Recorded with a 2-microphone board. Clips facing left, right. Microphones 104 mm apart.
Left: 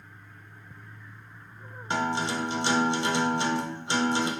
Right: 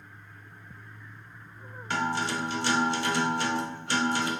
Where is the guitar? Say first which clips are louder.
Left 1 dB; 20° left (ahead or behind), 0.5 m.